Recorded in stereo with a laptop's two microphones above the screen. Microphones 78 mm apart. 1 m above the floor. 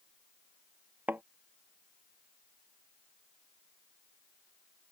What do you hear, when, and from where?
1.1 s a thud: 20° right (ahead or behind)